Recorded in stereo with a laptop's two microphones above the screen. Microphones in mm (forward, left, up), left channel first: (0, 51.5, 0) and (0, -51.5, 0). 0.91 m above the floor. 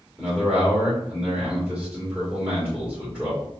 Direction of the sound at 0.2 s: 5° right (ahead or behind).